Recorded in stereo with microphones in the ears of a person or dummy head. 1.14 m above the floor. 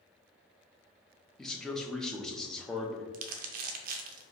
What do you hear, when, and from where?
1.4 s a man speaking: 5° left (ahead or behind), 0.7 m
3.1 s crumpling: 50° right (ahead or behind), 0.6 m